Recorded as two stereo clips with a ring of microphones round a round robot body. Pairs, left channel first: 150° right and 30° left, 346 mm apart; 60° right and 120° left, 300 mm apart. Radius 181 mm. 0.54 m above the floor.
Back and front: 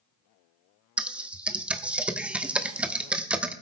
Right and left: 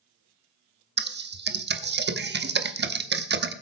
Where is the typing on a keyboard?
115° left, 1.0 m.